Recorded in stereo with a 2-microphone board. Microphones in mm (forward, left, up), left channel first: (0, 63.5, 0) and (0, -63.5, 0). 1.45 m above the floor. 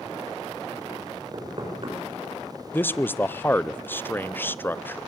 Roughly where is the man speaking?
Centre.